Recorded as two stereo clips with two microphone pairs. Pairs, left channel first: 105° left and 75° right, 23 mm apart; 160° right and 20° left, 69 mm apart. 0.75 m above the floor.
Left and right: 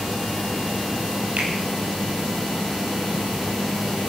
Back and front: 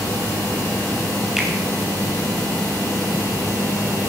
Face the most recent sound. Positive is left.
turn(degrees=-60)